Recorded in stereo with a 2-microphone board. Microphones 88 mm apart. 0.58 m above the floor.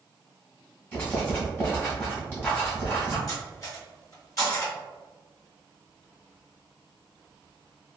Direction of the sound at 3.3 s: 40° left (ahead or behind).